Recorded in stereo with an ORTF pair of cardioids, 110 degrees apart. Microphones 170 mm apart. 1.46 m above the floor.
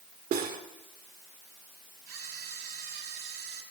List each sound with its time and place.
0.3 s cutlery clinking: 60° right, 3 m
2.1 s a camera shutter: 60° right, 5 m